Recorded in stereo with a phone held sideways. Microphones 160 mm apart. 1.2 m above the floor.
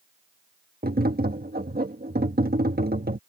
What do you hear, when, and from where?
0.8 s tapping: 70° right (ahead or behind)